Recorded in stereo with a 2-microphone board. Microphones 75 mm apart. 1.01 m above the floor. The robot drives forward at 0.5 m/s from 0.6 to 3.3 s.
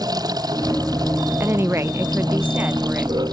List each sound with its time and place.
0.0 s running water: 60° right (ahead or behind); by 3.3 s 65° right (ahead or behind)
1.4 s a woman speaking: 30° right (ahead or behind); by 3.1 s 20° right (ahead or behind)